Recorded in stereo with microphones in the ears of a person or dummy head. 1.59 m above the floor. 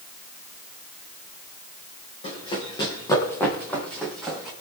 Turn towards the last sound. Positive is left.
turn(degrees=-5)  # may be behind; listen again after turning